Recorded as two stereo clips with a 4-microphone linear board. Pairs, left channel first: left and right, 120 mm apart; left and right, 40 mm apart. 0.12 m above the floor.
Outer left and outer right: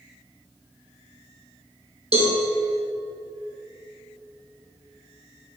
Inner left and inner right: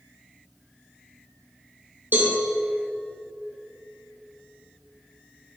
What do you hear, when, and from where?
2.1 s a cowbell: 55° right (ahead or behind), 2.5 m